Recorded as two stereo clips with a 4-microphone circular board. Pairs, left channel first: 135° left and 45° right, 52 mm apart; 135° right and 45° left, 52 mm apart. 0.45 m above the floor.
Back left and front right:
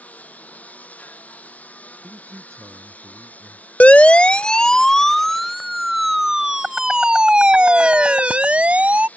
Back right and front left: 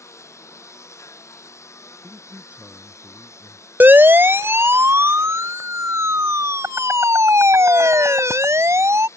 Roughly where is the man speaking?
Ahead.